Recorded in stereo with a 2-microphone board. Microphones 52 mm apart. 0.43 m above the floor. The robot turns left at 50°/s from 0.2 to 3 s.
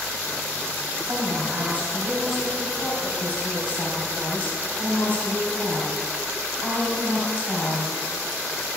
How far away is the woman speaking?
About 3 m.